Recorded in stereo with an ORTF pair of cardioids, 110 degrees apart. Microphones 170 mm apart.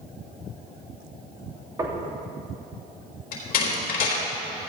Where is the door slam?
65° left, 4 m.